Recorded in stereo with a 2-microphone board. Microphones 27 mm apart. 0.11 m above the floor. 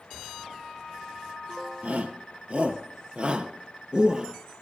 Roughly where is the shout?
Right.